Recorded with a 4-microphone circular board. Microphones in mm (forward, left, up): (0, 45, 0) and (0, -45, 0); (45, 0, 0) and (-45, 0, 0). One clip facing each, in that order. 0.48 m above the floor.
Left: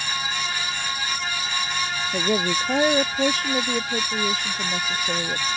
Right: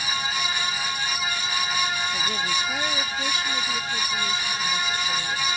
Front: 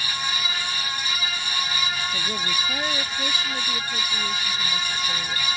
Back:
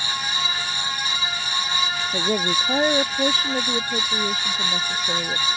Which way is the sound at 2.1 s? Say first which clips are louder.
Left 4 dB, back 6 dB; 130° left.